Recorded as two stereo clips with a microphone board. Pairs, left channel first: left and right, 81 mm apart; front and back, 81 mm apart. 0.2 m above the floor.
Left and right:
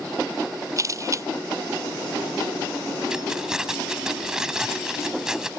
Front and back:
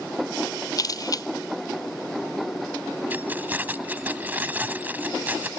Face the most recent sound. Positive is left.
turn(degrees=-160)